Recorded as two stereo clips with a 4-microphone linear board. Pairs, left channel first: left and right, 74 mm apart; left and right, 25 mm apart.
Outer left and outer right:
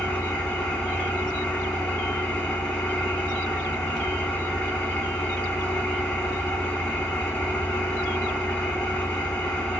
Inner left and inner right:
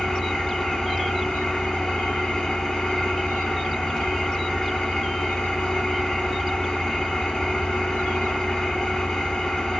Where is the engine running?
10° left (ahead or behind), 1.0 m.